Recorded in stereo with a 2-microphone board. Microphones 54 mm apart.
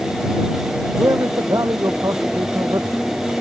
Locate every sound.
1.0 s a man speaking: 70° right (ahead or behind); by 3.1 s 75° right (ahead or behind)